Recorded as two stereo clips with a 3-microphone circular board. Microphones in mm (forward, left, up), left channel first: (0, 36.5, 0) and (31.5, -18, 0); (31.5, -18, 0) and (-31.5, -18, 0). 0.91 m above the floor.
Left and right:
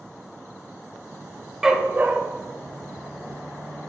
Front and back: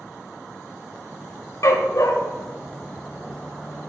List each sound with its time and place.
1.6 s a dog barking: 25° left, 0.9 m; by 3.9 s 30° right, 3 m